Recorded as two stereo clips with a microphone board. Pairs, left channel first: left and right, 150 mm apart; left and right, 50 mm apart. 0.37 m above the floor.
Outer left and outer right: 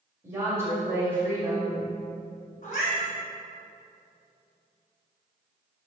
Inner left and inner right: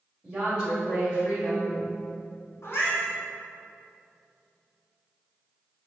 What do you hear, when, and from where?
0.2 s a woman speaking: 20° right (ahead or behind), 1.5 m
2.6 s a cat meowing: 60° left (ahead or behind), 1.3 m